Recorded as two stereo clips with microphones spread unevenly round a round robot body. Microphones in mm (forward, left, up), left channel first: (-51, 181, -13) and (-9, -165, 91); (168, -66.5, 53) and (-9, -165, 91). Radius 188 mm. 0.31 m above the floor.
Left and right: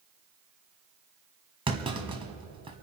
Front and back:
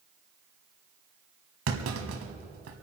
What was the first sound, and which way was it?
A clunk, 165° right.